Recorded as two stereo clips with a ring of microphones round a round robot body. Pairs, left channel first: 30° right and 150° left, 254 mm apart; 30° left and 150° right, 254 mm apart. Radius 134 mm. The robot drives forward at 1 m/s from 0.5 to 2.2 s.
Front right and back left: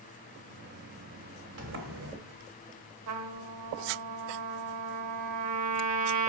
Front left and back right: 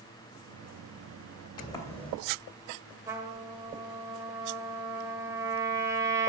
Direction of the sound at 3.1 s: 130° left.